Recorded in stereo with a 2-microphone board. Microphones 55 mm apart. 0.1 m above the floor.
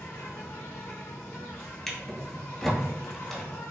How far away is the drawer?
About 0.9 m.